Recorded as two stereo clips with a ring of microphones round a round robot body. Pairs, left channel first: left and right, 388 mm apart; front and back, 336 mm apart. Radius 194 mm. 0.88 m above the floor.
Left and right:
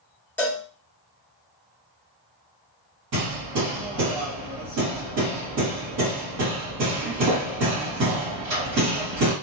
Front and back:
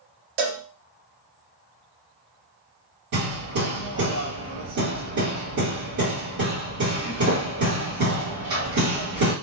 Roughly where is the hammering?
Behind right.